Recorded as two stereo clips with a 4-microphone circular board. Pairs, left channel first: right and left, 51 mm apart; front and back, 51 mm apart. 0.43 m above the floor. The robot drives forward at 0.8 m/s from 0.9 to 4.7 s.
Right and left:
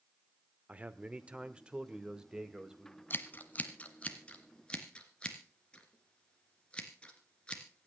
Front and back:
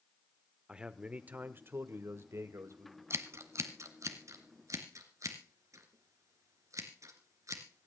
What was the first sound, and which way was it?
A man speaking, 125° left.